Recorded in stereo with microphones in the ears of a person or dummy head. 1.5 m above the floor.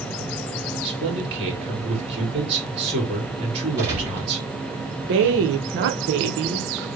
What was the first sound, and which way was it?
A man speaking, 30° right (ahead or behind).